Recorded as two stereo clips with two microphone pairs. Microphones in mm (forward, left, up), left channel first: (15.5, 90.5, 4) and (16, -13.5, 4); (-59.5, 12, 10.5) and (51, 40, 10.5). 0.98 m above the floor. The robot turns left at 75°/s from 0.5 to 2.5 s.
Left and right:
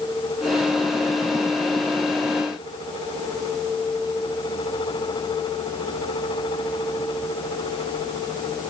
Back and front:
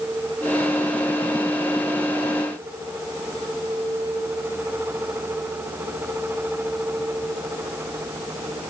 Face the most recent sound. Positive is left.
No sound to turn to.